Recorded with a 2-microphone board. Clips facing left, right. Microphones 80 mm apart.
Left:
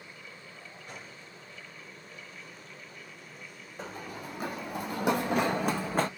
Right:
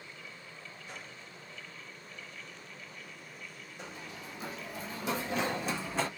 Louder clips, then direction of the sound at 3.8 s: Left 6 dB; 40° left (ahead or behind).